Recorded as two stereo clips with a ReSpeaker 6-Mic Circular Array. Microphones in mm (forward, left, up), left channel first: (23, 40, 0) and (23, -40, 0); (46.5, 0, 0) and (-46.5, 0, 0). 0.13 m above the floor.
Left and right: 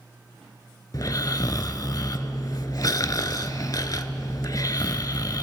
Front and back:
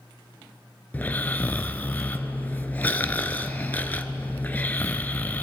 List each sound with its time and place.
0.9 s snoring: 65° left, 0.6 m